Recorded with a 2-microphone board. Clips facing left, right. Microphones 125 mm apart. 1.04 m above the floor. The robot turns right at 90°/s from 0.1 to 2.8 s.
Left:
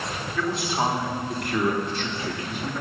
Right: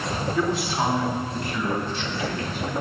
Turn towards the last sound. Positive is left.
turn(degrees=-165)